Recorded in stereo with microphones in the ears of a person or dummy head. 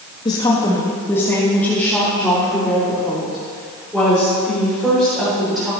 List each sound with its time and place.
0.2 s a woman speaking: 30° left (ahead or behind), 1.4 m; by 5.7 s 5° right (ahead or behind), 6 m